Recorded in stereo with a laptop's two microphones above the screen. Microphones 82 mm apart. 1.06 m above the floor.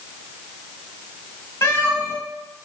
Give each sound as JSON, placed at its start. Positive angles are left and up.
{"t": 1.6, "sound": "a cat meowing", "side_deg": 35, "distance_m": 1.5}